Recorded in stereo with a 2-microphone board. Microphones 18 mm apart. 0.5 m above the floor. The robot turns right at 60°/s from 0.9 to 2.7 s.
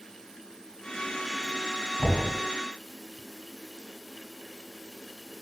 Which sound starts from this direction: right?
Knocking, at 2.0 s.